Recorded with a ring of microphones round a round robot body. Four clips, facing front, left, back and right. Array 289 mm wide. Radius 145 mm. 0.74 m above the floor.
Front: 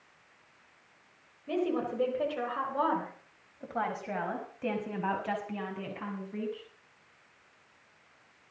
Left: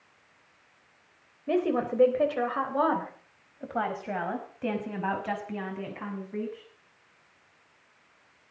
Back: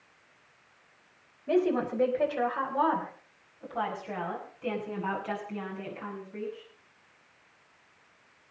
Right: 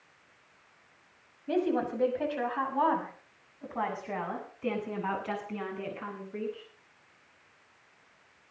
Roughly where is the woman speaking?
Left.